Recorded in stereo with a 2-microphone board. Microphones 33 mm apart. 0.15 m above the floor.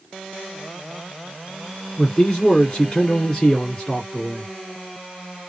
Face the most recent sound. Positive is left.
turn(degrees=20)  # may be behind; listen again after turning